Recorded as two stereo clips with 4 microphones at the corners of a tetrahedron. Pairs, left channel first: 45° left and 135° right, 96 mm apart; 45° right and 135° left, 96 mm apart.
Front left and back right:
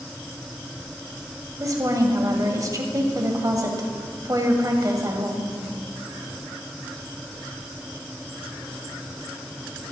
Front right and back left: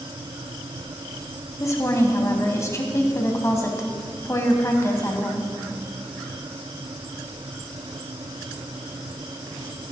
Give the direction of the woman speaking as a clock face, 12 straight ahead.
3 o'clock.